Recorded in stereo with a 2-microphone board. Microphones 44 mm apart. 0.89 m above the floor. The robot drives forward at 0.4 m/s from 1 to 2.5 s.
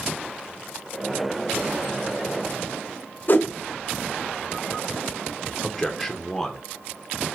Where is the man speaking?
5° left (ahead or behind), 0.6 m.